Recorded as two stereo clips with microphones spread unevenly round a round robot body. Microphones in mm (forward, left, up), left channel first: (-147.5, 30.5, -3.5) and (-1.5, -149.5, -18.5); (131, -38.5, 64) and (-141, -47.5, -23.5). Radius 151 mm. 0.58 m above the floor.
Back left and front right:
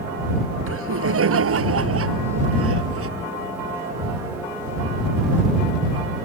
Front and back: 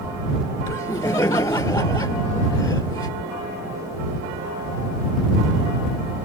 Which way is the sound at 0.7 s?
75° right.